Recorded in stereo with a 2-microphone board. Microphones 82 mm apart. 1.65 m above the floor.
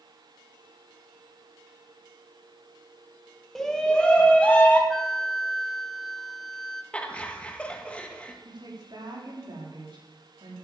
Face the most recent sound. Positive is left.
turn(degrees=-65)  # may be behind; listen again after turning